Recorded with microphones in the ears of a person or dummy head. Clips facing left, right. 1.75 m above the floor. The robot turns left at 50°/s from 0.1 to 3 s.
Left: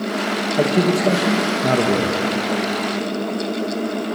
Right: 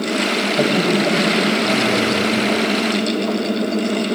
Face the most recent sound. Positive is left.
turn(degrees=45)